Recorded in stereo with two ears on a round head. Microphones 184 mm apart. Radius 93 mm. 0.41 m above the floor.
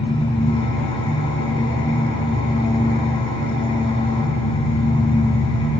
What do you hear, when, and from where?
0.0 s an engine running: 25° left (ahead or behind), 4.5 m